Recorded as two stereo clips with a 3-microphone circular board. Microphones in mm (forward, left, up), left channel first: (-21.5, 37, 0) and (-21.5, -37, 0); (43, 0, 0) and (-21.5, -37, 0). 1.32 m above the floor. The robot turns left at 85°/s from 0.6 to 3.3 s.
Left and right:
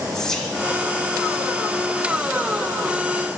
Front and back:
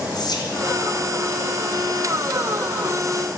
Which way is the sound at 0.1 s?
5° left.